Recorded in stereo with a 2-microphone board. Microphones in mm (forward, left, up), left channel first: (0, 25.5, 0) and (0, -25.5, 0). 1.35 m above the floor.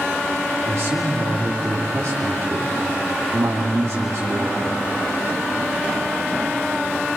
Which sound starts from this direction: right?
A man speaking, at 0.6 s.